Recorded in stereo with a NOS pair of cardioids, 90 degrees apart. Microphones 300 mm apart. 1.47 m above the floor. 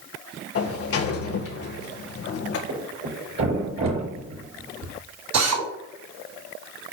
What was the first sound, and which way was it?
A sliding door, 50° left.